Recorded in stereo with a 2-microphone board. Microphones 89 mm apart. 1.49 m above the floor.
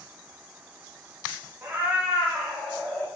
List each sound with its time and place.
1.6 s a cat meowing: 25° right (ahead or behind), 0.9 m; by 3.1 s 15° left (ahead or behind), 1.2 m